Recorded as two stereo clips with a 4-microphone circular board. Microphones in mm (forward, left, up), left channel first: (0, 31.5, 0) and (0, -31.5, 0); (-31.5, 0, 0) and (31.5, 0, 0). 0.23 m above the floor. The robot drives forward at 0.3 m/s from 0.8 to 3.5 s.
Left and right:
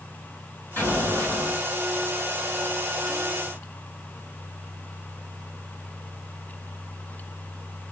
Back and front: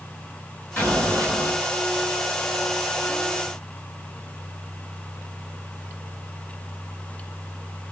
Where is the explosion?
130° left, 2 m; by 1.6 s 135° left, 2 m.